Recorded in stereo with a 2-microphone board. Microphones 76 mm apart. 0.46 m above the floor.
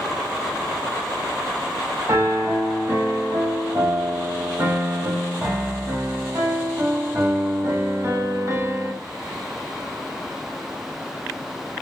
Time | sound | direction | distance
2.1 | a piano | 40° right (ahead or behind) | 1.8 m